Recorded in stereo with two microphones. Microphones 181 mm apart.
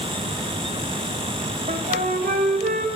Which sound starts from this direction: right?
A flute, at 1.7 s.